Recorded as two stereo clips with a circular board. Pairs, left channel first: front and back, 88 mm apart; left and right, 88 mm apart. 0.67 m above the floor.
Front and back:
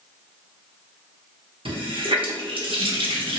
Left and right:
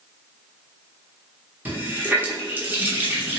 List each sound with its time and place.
1.6 s a running tap: 160° right, 0.7 m